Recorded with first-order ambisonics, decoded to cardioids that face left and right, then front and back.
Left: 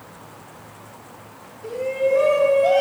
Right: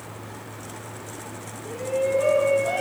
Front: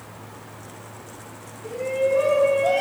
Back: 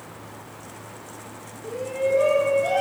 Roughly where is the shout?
Left.